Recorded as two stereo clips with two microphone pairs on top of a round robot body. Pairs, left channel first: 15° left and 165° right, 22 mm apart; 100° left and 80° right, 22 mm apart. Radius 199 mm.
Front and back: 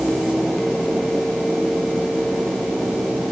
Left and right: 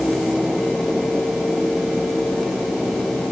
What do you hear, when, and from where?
Only background noise.